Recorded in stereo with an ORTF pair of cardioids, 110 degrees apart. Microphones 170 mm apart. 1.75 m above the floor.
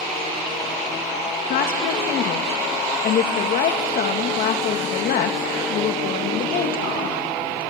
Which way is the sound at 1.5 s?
65° left.